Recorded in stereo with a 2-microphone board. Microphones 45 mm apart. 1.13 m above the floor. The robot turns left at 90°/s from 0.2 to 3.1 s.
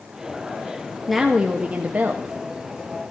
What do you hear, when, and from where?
1.1 s a woman speaking: 5° right, 0.5 m; by 2.3 s 115° right, 0.5 m